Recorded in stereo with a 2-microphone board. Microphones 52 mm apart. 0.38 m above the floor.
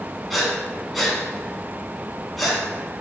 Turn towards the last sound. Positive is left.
turn(degrees=0)  # may be behind; listen again after turning